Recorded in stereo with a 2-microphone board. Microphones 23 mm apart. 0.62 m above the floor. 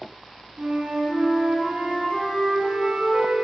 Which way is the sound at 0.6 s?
80° right.